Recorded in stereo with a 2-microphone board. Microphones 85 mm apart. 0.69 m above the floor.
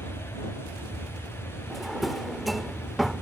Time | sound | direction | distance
0.0 | an aircraft | 40° left (ahead or behind) | ?
1.7 | a drawer | centre (ahead or behind) | ?